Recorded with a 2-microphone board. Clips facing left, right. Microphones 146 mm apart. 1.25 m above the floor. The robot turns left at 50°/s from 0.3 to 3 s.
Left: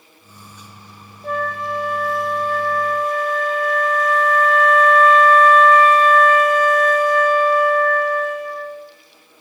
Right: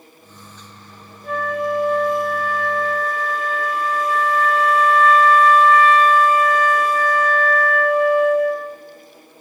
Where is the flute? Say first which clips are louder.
Right 2 dB; 50° left, 0.6 m; by 8.8 s 40° right, 0.6 m.